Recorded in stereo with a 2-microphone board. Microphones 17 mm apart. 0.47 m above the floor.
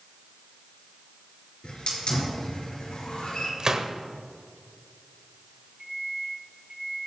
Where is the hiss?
80° left, 3.5 m.